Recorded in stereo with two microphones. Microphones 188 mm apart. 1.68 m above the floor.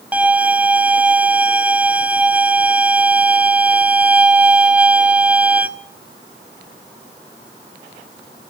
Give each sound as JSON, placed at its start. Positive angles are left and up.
{"t": 0.1, "sound": "a violin", "side_deg": -5, "distance_m": 0.6}